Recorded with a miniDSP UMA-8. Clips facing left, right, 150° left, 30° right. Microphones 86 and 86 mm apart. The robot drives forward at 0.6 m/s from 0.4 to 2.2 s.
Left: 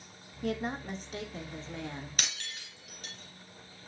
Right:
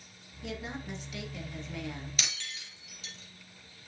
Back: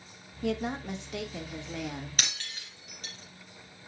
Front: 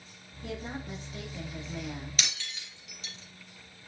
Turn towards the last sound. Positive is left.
turn(degrees=120)